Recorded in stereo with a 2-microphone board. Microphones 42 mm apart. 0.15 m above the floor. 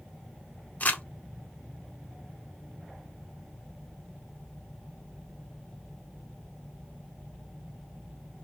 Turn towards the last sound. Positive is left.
turn(degrees=40)  # may be behind; listen again after turning